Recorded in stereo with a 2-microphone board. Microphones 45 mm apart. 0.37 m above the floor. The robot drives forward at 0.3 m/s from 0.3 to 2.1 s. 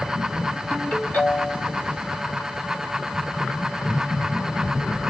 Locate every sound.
0.7 s a ringtone: 40° left (ahead or behind), 2.5 m; by 1.7 s 35° left (ahead or behind), 2.5 m